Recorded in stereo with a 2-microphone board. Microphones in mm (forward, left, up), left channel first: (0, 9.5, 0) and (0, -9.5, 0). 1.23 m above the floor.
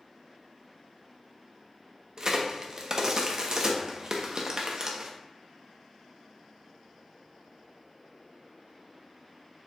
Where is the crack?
35° right (ahead or behind), 0.7 m.